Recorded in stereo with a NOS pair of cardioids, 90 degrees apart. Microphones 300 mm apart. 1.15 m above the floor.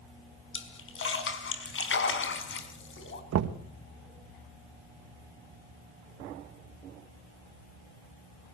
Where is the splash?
40° left, 4 m.